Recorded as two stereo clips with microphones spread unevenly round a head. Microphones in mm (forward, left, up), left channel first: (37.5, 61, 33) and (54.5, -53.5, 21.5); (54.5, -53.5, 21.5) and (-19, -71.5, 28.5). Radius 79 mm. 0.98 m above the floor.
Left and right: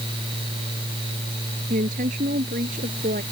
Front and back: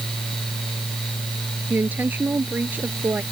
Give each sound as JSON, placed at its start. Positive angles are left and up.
{"t": 1.7, "sound": "a woman speaking", "azimuth_deg": -100}